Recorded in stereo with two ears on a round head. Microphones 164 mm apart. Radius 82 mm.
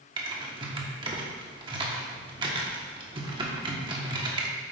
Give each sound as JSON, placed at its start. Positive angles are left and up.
{"t": 0.2, "sound": "typing on a keyboard", "side_deg": -25, "distance_m": 1.3}